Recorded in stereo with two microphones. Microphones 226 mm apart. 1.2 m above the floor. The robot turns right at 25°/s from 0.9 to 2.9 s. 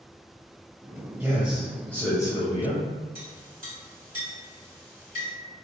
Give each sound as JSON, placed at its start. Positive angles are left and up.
{"t": 1.2, "sound": "a man speaking", "azimuth_deg": -5, "distance_m": 0.7}
{"t": 3.1, "sound": "a clink", "side_deg": -65, "distance_m": 1.7}